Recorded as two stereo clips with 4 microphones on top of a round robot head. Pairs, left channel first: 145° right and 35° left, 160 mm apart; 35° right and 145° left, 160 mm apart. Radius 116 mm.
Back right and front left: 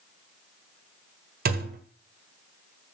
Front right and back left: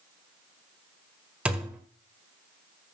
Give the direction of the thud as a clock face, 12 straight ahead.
10 o'clock.